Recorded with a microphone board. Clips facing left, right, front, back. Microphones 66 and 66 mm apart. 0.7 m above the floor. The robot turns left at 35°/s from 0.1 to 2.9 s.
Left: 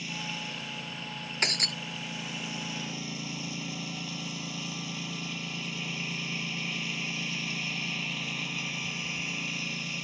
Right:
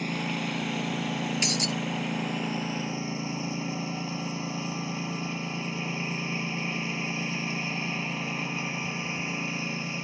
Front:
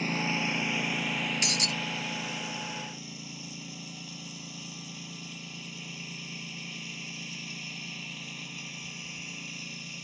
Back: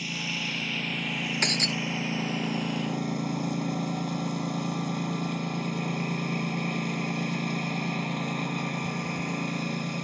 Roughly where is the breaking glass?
Behind left.